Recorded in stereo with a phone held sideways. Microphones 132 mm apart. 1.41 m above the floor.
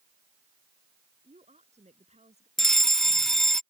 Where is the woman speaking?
60° right (ahead or behind).